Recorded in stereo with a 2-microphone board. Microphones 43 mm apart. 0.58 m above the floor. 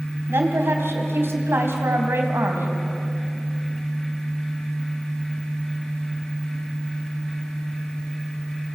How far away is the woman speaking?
About 3.5 m.